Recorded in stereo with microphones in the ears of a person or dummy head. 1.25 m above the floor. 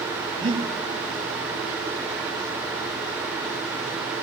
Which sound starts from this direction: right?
Breathing, at 0.4 s.